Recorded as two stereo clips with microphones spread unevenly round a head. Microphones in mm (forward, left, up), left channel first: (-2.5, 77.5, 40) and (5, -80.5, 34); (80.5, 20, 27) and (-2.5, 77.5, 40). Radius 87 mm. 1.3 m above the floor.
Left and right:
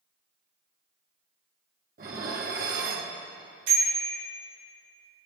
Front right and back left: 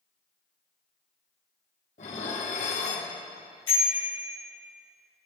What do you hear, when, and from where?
2.0 s dishes clattering: 55° right, 1.9 m
3.7 s a bicycle bell: 100° right, 6.5 m